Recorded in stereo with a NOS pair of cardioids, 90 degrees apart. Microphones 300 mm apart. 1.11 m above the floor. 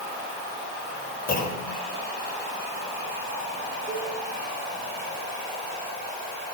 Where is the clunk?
30° left, 5 m.